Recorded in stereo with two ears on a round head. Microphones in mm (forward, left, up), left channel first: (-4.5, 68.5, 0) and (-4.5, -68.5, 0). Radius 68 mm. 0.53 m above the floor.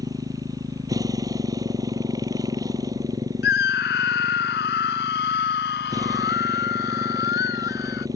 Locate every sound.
0.0 s a motorcycle: 25° right (ahead or behind)
3.4 s a scream: 75° left (ahead or behind)